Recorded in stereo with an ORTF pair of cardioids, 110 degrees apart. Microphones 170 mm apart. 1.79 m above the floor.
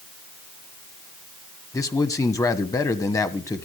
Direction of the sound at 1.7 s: 20° left.